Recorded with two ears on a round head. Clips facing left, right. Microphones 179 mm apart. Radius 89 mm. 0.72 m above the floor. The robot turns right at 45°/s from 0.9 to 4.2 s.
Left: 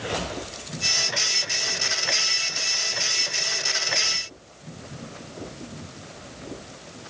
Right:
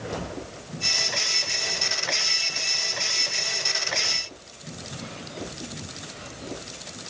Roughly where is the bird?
I don't hear a bird.